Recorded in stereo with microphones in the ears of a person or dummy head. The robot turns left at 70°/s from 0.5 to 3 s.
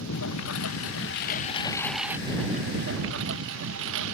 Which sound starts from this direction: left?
A lawn mower, at 0.0 s.